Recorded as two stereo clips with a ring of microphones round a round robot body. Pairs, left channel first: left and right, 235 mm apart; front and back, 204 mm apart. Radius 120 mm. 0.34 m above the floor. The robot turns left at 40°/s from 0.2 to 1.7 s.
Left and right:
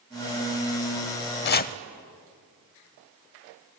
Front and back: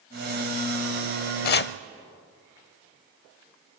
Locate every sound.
1.4 s chopping: 45° left, 0.6 m; by 1.7 s 35° left, 0.6 m